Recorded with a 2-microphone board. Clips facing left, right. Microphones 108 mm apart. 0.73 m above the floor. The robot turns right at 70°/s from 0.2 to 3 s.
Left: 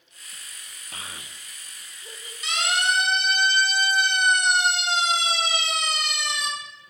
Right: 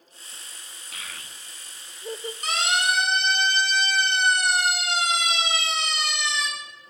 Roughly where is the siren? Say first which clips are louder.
Even; right.